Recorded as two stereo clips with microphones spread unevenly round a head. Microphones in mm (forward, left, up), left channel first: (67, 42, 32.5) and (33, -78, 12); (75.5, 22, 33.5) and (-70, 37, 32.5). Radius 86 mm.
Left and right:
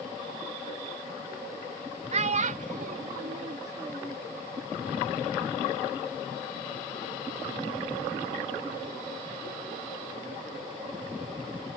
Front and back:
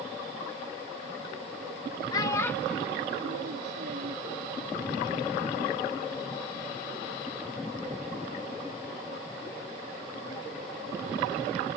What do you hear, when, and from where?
2.1 s a child speaking: 75° right; by 4.2 s 165° left